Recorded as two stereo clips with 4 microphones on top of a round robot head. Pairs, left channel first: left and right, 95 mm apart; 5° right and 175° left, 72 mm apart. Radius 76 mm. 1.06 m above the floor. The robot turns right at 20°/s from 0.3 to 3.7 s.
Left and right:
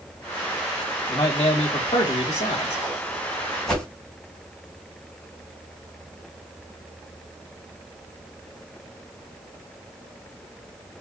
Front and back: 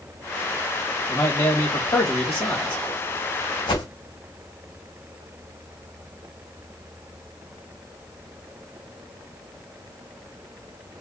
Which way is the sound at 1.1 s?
30° left.